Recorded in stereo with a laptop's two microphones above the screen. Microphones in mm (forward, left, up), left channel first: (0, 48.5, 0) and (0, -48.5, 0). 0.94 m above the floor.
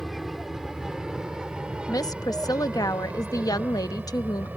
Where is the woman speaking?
40° left (ahead or behind).